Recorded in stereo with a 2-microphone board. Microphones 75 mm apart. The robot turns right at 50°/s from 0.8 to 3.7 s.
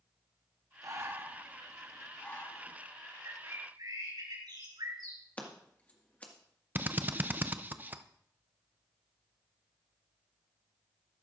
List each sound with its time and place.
0.8 s breathing: 50° right (ahead or behind), 1.1 m; by 2.8 s 50° left (ahead or behind), 1.1 m
3.2 s a bird: 50° right (ahead or behind), 4.5 m; by 5.2 s 75° right (ahead or behind), 4.5 m
5.4 s scissors: 20° left (ahead or behind), 1.8 m
6.8 s a drill: 25° right (ahead or behind), 0.5 m